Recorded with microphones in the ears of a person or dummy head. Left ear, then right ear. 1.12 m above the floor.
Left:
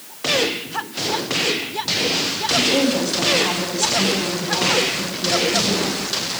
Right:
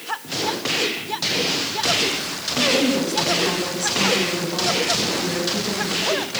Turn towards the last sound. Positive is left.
turn(degrees=30)  # may be behind; listen again after turning